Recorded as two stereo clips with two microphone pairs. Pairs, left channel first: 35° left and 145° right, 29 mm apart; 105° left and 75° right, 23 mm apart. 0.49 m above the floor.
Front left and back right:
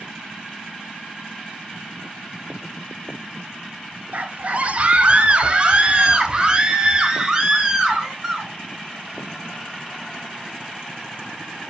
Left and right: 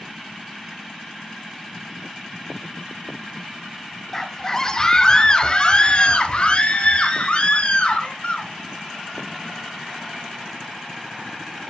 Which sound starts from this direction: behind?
A scream, at 4.1 s.